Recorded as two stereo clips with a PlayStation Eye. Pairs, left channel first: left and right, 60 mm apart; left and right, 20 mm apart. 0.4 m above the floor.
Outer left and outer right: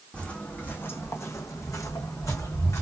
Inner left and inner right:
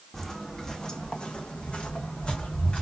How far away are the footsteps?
About 1.0 m.